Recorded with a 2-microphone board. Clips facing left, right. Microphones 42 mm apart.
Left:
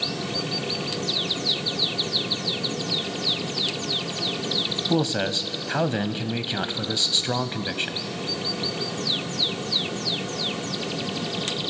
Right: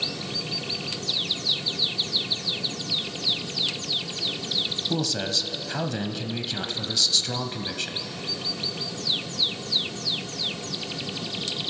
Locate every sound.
4.9 s a man speaking: 25° left (ahead or behind), 1.1 m